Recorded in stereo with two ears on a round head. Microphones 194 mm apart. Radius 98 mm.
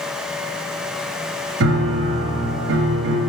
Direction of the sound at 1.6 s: 60° right (ahead or behind).